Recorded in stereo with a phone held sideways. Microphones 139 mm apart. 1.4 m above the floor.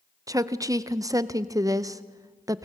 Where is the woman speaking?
25° right (ahead or behind), 0.7 m.